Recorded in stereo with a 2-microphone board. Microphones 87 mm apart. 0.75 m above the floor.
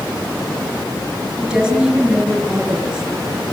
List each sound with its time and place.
1.4 s a woman speaking: 5° right (ahead or behind), 9.5 m